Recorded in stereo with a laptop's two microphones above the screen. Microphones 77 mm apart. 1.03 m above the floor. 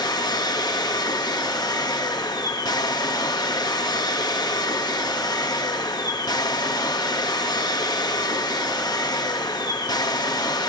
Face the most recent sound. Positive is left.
turn(degrees=65)  # may be behind; listen again after turning